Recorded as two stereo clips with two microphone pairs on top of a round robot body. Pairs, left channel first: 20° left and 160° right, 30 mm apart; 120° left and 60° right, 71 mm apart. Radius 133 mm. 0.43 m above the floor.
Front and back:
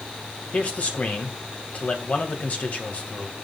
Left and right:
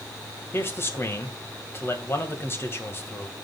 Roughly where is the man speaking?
Ahead left.